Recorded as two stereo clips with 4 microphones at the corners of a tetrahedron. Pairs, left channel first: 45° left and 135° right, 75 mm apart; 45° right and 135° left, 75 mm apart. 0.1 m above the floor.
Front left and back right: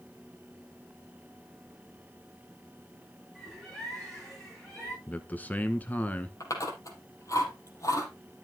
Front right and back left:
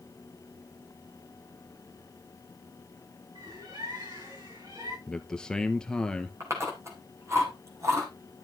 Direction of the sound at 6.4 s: 85° left.